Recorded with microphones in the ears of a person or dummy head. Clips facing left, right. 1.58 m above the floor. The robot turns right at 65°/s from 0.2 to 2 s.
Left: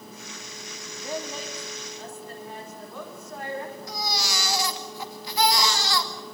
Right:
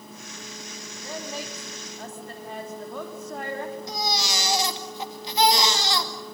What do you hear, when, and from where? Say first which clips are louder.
0.9 s a woman speaking: left 2 dB; 155° left, 4 m; by 3.8 s 135° right, 4 m
3.9 s a baby crying: right 2 dB; 20° right (ahead or behind), 2.5 m